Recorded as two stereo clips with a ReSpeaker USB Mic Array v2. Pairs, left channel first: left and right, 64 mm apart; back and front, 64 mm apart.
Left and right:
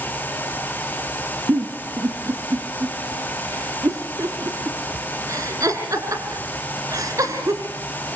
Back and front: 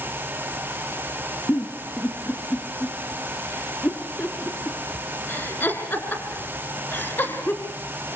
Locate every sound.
1.5 s a giggle: 125° right, 3 m